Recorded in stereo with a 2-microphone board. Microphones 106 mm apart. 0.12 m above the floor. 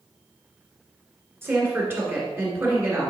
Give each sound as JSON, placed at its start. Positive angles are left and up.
{"t": 1.4, "sound": "a woman speaking", "side_deg": -20, "distance_m": 1.9}